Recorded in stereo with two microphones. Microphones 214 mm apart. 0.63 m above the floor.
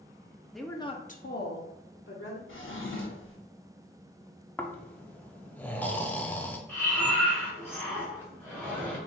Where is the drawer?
65° left (ahead or behind), 0.9 m.